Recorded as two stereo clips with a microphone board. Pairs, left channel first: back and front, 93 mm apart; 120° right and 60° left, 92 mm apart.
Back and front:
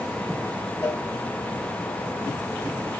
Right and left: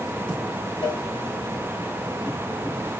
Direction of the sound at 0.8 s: 120° right.